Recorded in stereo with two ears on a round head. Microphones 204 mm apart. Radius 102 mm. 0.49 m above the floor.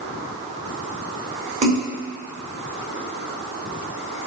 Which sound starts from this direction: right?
A splash, at 1.6 s.